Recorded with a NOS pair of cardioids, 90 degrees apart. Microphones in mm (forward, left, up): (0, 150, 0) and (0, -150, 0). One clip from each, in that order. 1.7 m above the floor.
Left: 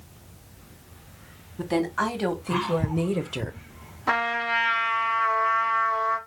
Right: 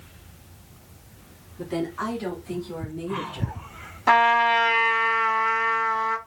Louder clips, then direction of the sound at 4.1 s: Right 7 dB; 35° right.